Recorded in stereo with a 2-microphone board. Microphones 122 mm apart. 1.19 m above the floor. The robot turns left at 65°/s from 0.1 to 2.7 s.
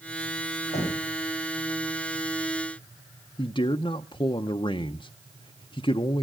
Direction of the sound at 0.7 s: 80° left.